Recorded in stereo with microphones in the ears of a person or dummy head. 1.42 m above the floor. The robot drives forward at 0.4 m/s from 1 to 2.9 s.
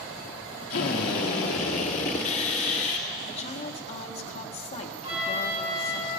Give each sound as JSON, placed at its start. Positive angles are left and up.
{"t": 0.7, "sound": "a drill", "side_deg": 45, "distance_m": 1.1}
{"t": 3.2, "sound": "a woman speaking", "side_deg": 35, "distance_m": 1.2}
{"t": 5.0, "sound": "a flute", "side_deg": -35, "distance_m": 4.0}